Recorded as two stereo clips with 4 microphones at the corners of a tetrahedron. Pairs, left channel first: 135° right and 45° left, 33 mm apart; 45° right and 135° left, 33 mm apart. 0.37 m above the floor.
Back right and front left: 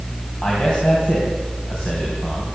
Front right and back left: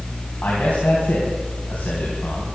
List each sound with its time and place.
0.4 s a man speaking: 80° right, 3.5 m